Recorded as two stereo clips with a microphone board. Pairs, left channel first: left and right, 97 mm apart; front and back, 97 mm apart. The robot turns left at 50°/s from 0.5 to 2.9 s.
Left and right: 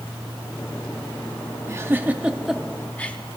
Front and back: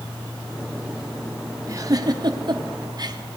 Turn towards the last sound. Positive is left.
turn(degrees=160)